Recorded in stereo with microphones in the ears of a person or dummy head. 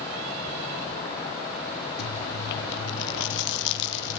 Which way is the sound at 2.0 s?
65° left (ahead or behind).